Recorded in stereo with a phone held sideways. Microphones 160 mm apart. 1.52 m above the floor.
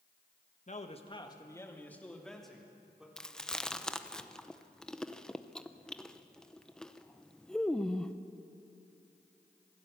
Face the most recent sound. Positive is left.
turn(degrees=5)  # may be behind; listen again after turning